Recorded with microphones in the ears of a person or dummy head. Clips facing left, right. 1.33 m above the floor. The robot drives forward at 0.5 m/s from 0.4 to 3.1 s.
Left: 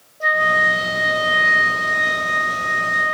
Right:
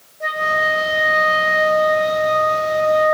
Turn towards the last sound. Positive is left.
turn(degrees=70)  # may be behind; listen again after turning